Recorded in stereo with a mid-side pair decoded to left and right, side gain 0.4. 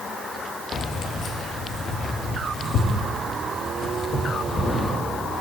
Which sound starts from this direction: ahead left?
Keys jangling, at 0.7 s.